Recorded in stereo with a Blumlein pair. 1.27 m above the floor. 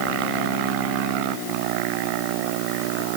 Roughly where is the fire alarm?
No fire alarm in this recording.